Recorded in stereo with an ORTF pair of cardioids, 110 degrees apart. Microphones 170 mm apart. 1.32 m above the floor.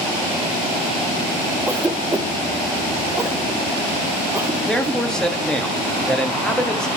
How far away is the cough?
About 1.2 m.